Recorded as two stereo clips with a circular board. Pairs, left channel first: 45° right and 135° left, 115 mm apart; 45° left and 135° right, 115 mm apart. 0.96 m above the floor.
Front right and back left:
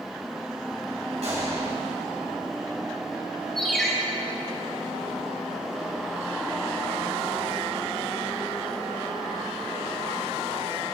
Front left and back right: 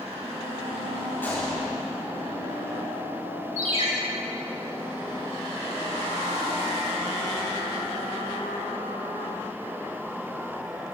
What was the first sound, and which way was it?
A gunshot, 115° left.